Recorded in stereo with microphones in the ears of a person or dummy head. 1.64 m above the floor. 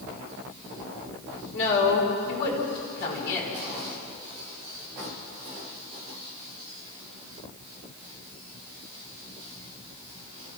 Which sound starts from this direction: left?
A woman speaking, at 1.5 s.